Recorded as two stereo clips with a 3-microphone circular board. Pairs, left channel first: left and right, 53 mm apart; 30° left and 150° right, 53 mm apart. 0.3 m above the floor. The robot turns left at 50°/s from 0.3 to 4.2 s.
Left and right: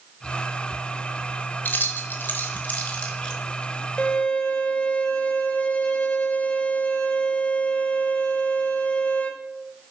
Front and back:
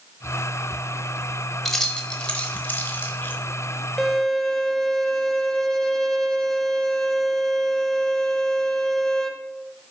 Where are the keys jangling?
110° left, 1.0 m; by 3.4 s 25° left, 1.0 m.